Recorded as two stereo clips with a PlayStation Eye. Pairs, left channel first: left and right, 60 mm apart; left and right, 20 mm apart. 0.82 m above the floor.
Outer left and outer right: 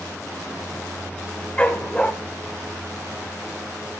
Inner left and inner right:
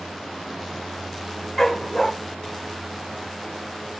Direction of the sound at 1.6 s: 20° left (ahead or behind).